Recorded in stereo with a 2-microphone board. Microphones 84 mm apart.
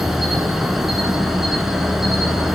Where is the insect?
5° right (ahead or behind), 2.5 m.